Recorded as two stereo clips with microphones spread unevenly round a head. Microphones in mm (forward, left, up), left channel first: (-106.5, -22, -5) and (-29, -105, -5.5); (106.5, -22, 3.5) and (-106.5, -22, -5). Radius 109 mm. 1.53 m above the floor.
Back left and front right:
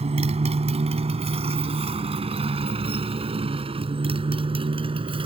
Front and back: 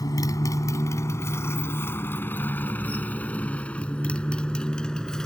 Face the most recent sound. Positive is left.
turn(degrees=-85)